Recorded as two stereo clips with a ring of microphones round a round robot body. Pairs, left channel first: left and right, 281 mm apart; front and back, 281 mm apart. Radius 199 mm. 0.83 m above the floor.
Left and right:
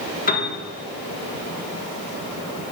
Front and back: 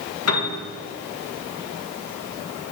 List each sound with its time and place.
0.3 s a piano: 30° left, 1.4 m